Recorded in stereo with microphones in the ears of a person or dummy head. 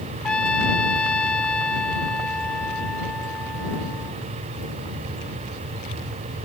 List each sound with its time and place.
0.2 s a trumpet: 5° left (ahead or behind)